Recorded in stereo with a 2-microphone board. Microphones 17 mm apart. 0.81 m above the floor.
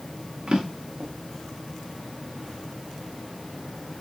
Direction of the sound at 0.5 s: 55° right (ahead or behind).